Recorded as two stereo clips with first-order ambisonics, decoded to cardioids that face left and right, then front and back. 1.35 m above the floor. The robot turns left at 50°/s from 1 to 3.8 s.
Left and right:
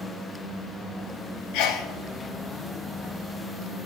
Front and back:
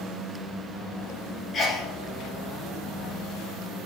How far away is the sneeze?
About 1.0 m.